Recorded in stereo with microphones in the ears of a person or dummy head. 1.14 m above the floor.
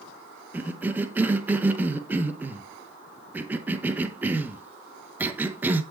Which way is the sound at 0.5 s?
10° right (ahead or behind).